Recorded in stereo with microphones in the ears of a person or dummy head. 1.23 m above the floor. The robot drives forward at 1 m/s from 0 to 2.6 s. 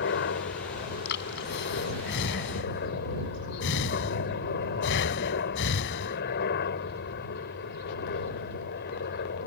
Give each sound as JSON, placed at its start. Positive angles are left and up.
{"t": 0.0, "sound": "a helicopter", "side_deg": 55}
{"t": 1.1, "sound": "breathing", "side_deg": 60}